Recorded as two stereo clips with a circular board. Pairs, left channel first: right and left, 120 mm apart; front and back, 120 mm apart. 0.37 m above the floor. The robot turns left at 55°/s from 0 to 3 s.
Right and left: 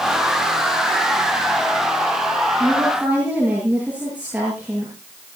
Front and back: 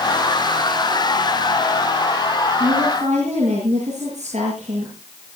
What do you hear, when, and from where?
2.6 s a woman speaking: 170° right, 7.5 m; by 4.9 s 170° left, 7.5 m